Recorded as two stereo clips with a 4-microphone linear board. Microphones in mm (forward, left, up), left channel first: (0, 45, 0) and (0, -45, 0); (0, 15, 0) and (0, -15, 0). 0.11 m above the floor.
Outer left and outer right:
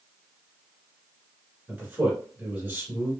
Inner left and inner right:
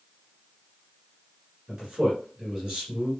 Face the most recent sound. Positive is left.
turn(degrees=-20)  # may be behind; listen again after turning